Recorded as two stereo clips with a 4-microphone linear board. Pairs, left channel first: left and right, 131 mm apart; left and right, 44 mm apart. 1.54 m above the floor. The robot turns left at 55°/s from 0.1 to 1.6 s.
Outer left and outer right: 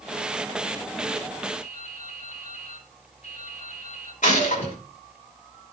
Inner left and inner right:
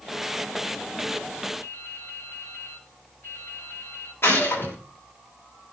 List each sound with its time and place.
1.6 s dripping: 55° left (ahead or behind), 6.5 m
4.2 s a gunshot: 65° left (ahead or behind), 6 m